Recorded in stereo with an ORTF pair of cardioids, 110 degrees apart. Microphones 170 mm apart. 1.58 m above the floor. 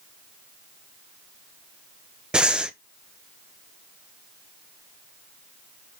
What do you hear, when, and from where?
2.3 s breathing: 5° right, 0.9 m